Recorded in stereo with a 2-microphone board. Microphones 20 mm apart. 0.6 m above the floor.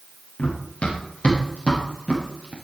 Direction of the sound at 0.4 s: 85° left.